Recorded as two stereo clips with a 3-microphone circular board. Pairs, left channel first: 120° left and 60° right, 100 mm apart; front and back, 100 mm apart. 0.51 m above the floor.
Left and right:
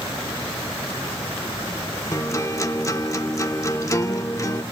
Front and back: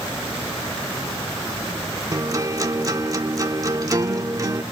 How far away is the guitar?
About 1.5 m.